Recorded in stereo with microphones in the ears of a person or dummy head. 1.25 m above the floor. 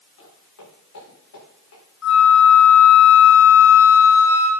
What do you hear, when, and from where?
0.2 s footsteps: 80° left, 6.5 m; by 1.8 s 75° left (ahead or behind), 7 m
2.0 s a flute: 80° left, 6 m